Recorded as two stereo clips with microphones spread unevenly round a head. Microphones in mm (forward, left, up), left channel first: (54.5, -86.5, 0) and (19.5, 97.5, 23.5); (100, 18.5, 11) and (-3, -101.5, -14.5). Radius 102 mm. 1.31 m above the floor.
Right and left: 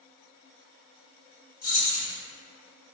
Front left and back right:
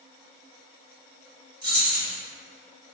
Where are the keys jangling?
110° right, 1.6 m.